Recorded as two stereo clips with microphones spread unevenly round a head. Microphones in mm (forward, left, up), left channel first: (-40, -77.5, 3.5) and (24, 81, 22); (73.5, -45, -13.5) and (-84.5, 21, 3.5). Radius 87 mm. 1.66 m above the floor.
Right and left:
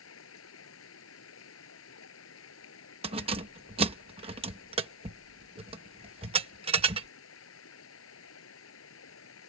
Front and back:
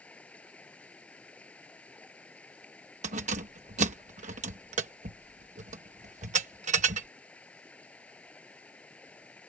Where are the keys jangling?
115° left.